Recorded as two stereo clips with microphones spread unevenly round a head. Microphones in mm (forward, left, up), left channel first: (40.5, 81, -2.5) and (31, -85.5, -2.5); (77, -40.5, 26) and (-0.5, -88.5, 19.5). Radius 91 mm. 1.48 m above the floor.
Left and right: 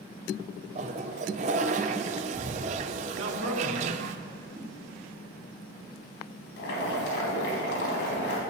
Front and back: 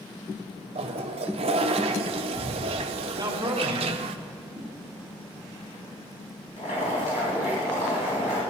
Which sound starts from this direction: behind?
A whoosh, at 4.5 s.